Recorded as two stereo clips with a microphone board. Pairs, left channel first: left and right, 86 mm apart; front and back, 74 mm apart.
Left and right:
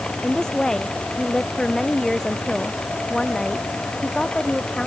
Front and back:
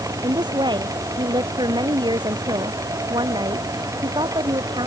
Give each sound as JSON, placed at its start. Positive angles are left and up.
{"t": 0.2, "sound": "a woman speaking", "azimuth_deg": 175}